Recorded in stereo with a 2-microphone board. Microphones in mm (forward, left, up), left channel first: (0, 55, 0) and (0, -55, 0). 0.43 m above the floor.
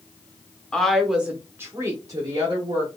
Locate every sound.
0.7 s a woman speaking: 5° left (ahead or behind), 0.7 m; by 2.9 s 45° right (ahead or behind), 1.1 m